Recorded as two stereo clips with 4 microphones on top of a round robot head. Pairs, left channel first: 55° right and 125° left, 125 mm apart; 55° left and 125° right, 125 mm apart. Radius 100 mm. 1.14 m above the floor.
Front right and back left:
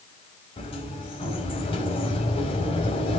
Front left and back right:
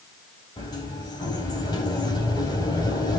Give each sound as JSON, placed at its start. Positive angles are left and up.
{"t": 0.6, "sound": "a sliding door", "azimuth_deg": -5, "distance_m": 4.0}